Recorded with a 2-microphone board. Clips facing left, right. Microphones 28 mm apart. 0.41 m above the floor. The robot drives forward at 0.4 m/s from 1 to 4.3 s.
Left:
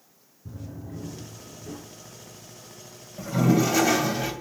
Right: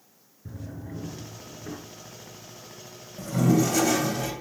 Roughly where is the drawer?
Right.